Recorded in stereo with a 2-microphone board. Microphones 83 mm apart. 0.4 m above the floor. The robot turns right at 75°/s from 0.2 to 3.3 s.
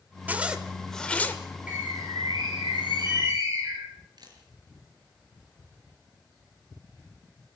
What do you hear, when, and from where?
0.3 s a zipper: 40° right, 1.6 m; by 1.4 s 40° left, 1.6 m
1.7 s a bird: 165° right, 5 m; by 3.9 s 40° right, 5 m
4.2 s a camera shutter: 60° right (ahead or behind), 5 m